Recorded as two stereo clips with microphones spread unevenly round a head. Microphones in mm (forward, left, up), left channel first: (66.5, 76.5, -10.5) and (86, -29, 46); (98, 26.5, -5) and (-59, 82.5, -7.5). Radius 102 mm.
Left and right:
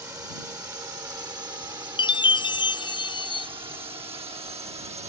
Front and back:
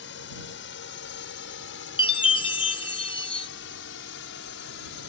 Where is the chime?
35° left.